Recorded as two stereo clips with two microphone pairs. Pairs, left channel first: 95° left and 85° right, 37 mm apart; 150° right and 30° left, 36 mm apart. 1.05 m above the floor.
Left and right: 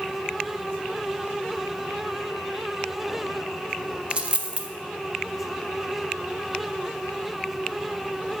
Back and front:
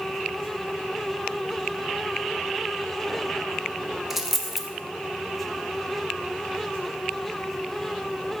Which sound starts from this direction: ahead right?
A dropped coin, at 4.1 s.